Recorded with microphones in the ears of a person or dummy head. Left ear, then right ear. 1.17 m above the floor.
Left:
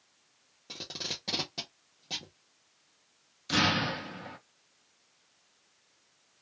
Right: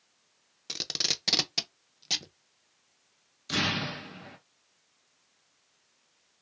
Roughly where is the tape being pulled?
Right.